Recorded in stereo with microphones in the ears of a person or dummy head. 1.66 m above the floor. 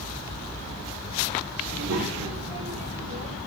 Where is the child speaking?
80° right, 5 m.